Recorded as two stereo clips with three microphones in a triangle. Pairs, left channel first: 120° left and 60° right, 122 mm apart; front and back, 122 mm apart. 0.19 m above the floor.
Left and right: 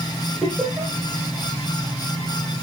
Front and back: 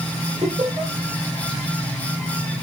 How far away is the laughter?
About 5 m.